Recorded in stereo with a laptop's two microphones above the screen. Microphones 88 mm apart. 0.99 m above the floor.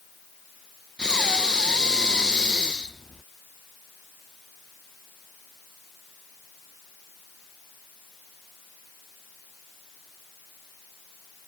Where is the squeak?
No squeak in this recording.